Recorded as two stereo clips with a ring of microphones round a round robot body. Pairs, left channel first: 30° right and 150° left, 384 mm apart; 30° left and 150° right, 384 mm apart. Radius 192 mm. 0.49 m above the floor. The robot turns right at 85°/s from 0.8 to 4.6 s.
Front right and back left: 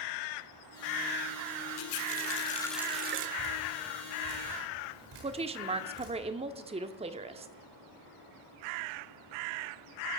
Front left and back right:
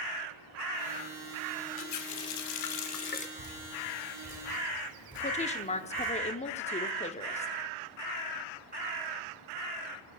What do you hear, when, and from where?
1.8 s a running tap: 25° right, 1.0 m; by 3.3 s 105° left, 1.0 m
3.4 s dripping: 25° left, 8.5 m; by 6.1 s 130° left, 8.5 m
5.2 s a woman speaking: 90° left, 0.8 m